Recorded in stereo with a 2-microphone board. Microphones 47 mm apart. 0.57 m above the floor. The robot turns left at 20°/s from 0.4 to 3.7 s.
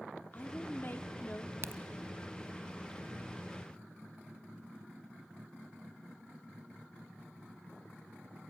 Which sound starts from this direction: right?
A crack, at 1.6 s.